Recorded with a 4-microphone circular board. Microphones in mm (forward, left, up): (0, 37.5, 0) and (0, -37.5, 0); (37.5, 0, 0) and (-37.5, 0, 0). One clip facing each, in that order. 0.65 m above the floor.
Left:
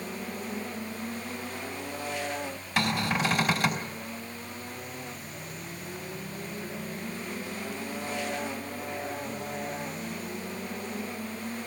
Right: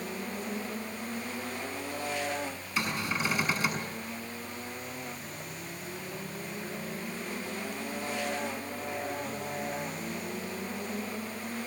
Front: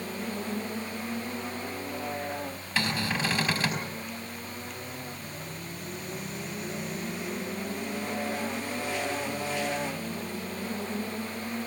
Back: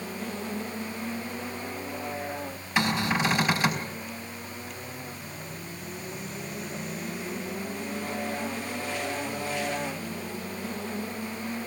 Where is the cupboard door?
105° left, 4.5 m.